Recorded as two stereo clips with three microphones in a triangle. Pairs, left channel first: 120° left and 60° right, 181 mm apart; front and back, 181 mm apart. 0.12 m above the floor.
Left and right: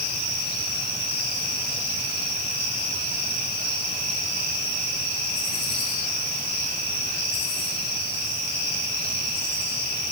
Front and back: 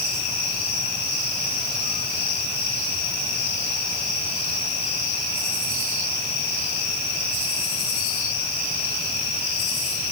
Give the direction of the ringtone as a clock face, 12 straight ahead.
No ringtone in this recording.